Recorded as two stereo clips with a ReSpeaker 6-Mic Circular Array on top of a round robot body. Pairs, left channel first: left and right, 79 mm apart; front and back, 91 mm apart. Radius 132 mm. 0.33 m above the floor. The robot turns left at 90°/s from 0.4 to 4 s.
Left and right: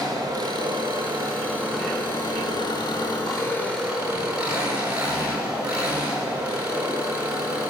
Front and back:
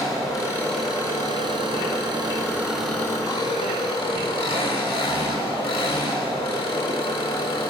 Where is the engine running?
50° right, 4.5 m; by 7.7 s 15° right, 4.5 m.